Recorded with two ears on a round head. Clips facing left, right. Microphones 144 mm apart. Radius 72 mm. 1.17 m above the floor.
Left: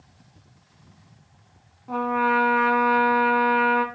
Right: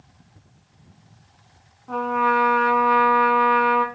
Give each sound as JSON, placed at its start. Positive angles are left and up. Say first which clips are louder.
{"t": 1.9, "sound": "a trumpet", "louder": "right 1 dB", "side_deg": 5, "distance_m": 3.0}